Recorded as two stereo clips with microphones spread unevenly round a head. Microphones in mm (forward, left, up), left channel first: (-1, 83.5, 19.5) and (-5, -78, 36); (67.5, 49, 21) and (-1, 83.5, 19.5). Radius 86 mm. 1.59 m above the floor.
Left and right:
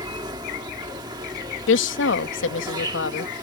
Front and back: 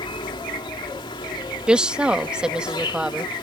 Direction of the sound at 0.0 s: 30° right.